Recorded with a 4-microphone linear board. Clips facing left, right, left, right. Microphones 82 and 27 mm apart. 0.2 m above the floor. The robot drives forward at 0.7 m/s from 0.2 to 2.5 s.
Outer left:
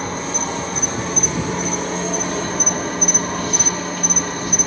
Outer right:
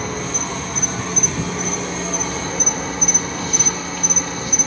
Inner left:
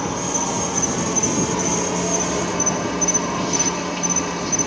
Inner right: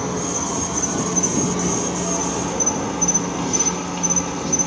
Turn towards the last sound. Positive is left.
turn(degrees=50)  # may be behind; listen again after turning